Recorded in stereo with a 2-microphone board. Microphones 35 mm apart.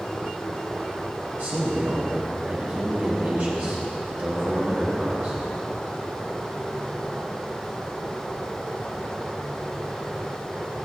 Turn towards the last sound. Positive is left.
turn(degrees=-50)  # may be behind; listen again after turning